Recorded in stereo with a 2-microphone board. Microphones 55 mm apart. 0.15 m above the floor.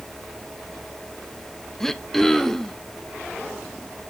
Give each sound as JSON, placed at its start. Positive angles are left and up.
{"t": 1.8, "sound": "throat clearing", "side_deg": 5, "distance_m": 0.6}